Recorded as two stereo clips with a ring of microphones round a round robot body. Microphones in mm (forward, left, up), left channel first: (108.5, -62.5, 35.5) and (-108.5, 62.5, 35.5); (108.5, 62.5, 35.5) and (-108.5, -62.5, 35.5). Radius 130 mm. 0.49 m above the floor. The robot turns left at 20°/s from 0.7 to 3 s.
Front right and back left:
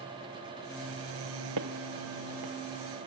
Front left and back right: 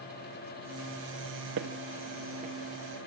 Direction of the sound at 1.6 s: 165° left.